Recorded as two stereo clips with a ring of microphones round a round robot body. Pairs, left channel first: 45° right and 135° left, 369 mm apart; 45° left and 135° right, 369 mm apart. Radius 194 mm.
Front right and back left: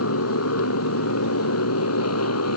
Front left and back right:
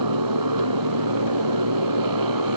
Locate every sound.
0.0 s a motorcycle: 100° right; by 2.6 s 95° right